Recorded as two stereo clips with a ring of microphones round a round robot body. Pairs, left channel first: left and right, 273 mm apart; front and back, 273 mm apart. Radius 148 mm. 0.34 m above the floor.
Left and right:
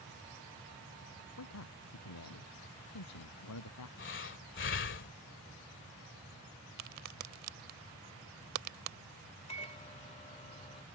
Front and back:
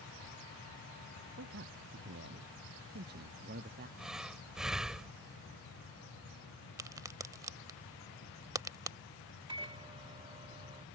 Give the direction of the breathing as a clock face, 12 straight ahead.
9 o'clock.